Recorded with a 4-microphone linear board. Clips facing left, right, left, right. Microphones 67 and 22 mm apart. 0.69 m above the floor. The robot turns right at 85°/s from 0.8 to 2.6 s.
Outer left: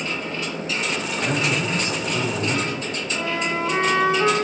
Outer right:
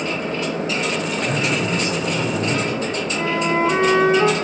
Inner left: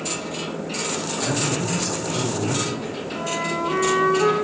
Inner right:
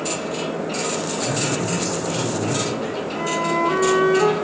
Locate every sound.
1.1 s a man speaking: 80° left, 6 m; by 3.0 s 155° right, 6 m
3.1 s a flute: 20° right (ahead or behind), 8 m